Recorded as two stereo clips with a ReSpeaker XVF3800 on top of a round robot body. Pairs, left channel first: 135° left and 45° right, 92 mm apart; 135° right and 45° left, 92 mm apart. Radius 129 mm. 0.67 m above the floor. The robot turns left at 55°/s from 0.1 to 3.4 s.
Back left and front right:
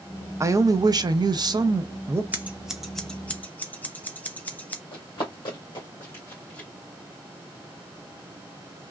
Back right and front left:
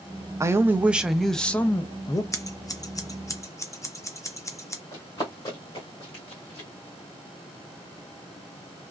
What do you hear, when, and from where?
0.4 s a man speaking: straight ahead, 0.6 m; by 2.2 s 100° right, 0.6 m
2.3 s scissors: 105° right, 0.7 m; by 4.8 s 165° right, 0.7 m
4.9 s running footsteps: 170° left, 1.4 m; by 6.7 s 155° right, 1.6 m